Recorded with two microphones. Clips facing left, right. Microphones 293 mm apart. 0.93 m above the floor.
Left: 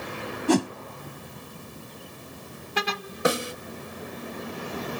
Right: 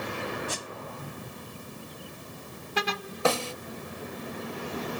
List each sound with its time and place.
0.5 s a whoosh: 75° left (ahead or behind)
3.2 s a snare drum: 20° left (ahead or behind)